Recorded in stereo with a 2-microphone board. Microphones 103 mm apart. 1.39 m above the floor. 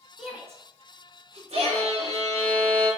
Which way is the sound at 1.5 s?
80° right.